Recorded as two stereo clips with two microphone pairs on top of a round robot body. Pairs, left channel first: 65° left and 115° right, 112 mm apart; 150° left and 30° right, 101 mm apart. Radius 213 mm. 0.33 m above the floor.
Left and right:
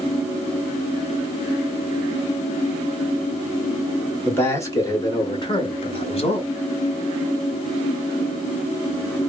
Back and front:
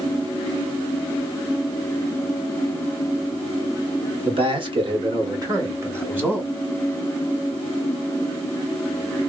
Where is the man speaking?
5° right, 1.7 m; by 6.5 s 50° left, 1.5 m.